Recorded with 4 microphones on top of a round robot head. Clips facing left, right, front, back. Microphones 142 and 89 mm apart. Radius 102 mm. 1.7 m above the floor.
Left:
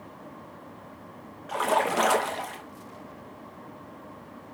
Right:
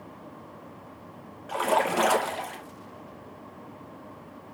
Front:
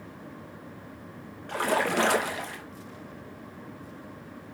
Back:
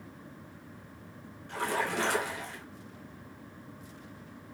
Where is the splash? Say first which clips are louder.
Even, front 6 dB; 5° right, 0.7 m.